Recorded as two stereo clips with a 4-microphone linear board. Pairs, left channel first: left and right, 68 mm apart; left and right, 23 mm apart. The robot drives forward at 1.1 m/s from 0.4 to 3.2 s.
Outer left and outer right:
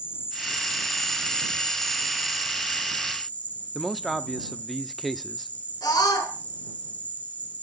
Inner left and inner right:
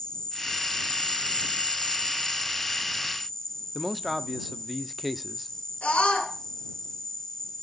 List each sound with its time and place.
0.0 s an insect: 30° left (ahead or behind), 1.5 m; by 7.6 s 20° left (ahead or behind), 2 m
3.8 s a man speaking: centre (ahead or behind), 0.8 m
5.8 s a scream: 85° left, 6 m